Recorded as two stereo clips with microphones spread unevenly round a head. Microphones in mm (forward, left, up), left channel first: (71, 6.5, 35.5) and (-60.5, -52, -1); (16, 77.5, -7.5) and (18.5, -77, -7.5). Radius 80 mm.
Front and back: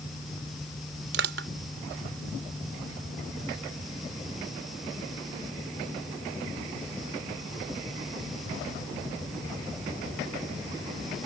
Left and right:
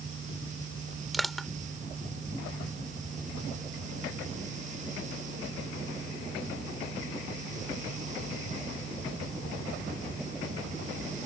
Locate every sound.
1.1 s crushing: straight behind